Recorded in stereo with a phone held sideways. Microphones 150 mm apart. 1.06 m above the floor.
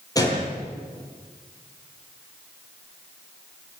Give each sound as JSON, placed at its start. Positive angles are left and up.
{"t": 0.1, "sound": "a gunshot", "side_deg": 25, "distance_m": 9.5}